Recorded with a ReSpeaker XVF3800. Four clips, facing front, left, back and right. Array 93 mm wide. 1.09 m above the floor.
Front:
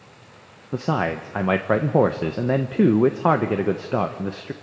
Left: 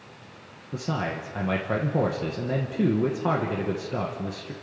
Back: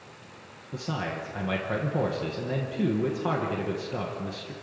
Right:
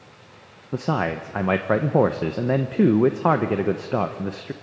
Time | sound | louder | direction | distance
0.7 | a man speaking | right 6 dB, front 9 dB | 40° right | 0.9 m